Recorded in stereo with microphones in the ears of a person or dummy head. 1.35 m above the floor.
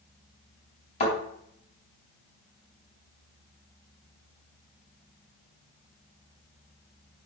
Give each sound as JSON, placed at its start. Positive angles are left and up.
{"t": 1.0, "sound": "a thud", "side_deg": 35, "distance_m": 4.0}